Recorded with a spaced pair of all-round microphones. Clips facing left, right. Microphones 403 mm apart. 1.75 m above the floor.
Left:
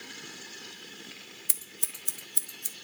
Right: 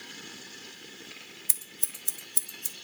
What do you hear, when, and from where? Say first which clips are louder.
1.5 s scissors: even; 5° right (ahead or behind), 0.7 m